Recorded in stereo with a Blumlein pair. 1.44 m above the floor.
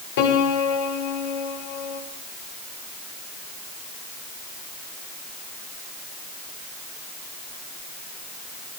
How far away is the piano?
About 5 m.